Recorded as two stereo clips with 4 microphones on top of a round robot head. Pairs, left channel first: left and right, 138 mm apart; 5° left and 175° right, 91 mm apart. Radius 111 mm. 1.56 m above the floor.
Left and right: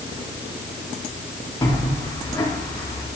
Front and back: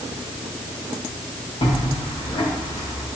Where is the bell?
25° left, 5 m.